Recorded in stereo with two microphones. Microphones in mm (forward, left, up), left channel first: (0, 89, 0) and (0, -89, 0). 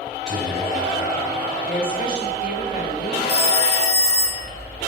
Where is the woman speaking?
55° left (ahead or behind), 2 m.